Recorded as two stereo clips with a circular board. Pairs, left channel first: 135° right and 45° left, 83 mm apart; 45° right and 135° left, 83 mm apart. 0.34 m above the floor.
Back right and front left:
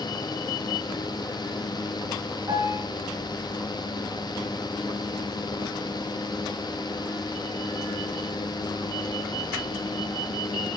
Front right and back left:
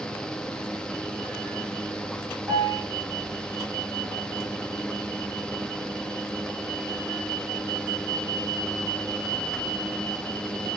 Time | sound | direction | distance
2.5 | a piano | 80° left | 4 m